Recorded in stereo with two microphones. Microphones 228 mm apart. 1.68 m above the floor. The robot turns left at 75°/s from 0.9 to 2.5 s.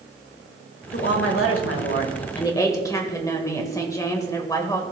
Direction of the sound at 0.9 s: 135° left.